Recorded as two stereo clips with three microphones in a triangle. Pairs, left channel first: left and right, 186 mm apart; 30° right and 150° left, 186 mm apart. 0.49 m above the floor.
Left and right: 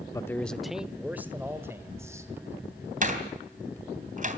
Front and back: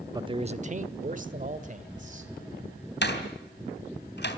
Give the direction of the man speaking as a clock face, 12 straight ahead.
8 o'clock.